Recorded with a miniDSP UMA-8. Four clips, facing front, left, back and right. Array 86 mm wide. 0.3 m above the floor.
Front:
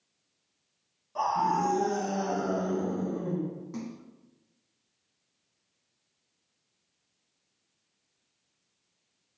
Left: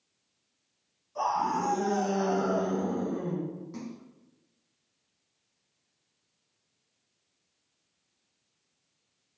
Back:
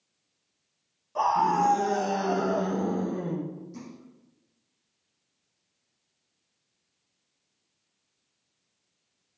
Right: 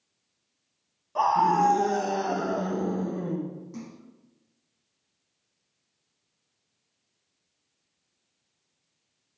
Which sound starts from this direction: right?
A scream, at 1.1 s.